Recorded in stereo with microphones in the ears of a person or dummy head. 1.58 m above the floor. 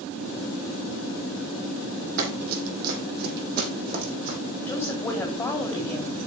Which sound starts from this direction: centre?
A woman speaking, at 4.7 s.